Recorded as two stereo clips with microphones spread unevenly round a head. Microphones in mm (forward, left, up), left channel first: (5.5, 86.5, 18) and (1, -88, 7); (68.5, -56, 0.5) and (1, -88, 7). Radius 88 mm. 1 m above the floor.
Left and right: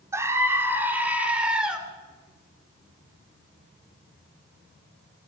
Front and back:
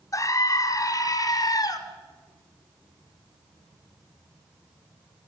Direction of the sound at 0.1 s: 15° right.